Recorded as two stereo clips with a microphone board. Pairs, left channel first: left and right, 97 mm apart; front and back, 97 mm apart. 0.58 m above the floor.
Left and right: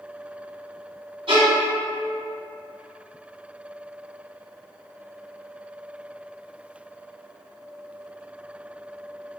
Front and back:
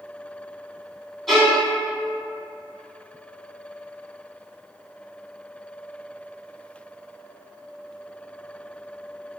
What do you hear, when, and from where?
1.3 s a violin: 90° right, 1.2 m